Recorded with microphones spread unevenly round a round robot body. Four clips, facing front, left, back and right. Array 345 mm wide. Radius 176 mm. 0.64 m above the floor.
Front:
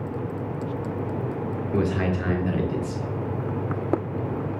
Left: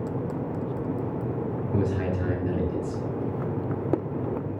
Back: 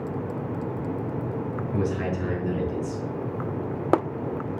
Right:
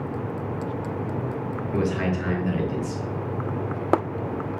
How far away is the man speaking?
About 2 m.